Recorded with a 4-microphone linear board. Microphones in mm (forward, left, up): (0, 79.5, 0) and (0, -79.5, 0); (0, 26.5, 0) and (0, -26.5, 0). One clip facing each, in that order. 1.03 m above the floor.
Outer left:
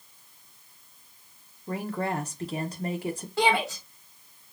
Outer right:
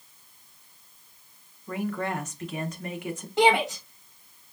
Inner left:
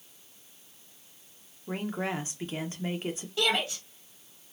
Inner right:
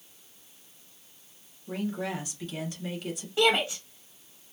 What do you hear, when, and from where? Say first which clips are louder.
1.7 s a woman speaking: even, even; 35° left (ahead or behind), 0.9 m
3.4 s a shout: outer right 4 dB, inner right 5 dB; 20° right (ahead or behind), 1.1 m